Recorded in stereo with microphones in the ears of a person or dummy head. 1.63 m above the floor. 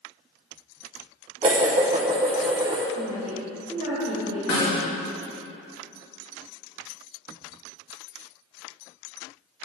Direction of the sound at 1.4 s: 25° right (ahead or behind).